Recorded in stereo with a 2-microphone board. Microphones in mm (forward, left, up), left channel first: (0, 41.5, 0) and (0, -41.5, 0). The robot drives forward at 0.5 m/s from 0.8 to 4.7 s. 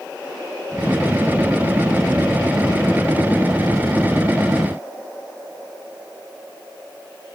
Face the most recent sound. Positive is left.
No sound to turn to.